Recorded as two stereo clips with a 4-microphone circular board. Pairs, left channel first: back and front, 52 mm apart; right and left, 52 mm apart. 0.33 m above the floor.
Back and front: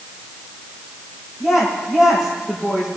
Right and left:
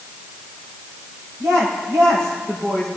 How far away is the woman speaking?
About 7 m.